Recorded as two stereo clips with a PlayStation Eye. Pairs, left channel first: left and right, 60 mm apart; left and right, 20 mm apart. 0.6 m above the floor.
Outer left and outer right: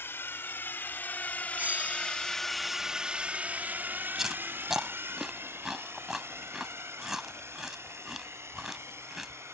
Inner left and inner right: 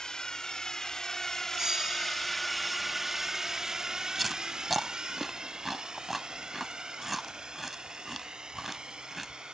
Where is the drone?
40° left (ahead or behind); by 9.5 s 45° right (ahead or behind).